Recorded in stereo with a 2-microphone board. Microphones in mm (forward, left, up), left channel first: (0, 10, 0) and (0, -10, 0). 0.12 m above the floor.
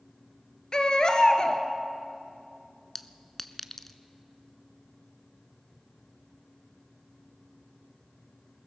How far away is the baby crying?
About 1.6 m.